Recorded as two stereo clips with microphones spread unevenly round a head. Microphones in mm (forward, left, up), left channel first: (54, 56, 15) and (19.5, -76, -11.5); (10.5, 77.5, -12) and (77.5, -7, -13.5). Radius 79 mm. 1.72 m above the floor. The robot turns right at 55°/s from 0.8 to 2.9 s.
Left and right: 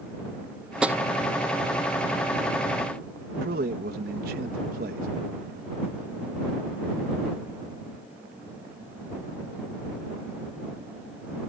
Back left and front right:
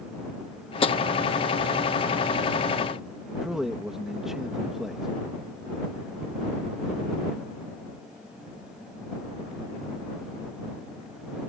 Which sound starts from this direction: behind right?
A man speaking, at 3.4 s.